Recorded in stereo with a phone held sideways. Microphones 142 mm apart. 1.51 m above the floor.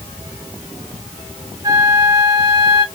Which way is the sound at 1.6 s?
30° right (ahead or behind).